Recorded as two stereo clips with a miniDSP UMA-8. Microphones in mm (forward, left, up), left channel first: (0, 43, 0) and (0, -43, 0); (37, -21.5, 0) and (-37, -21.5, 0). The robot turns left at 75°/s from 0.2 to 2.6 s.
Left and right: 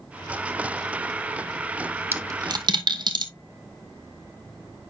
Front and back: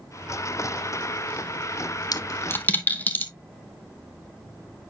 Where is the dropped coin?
30° right, 0.9 m; by 3.3 s 65° right, 0.9 m.